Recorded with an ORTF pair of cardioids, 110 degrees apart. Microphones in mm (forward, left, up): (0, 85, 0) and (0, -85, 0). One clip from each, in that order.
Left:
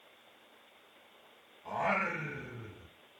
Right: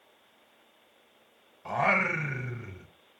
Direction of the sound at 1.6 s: 50° right.